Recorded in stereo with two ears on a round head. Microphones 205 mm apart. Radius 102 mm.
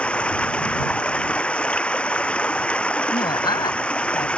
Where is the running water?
5° left (ahead or behind).